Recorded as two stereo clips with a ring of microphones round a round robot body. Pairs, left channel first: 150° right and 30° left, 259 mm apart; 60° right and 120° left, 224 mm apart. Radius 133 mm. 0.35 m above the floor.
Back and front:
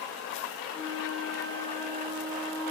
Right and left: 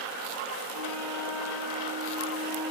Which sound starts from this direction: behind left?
A flute, at 0.7 s.